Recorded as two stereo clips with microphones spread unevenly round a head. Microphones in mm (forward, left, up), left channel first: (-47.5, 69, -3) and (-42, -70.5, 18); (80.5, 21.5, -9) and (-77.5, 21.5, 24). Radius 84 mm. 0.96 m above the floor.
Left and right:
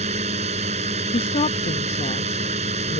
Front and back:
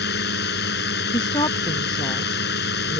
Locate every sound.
0.0 s a drone: 30° right
1.1 s a woman speaking: 55° left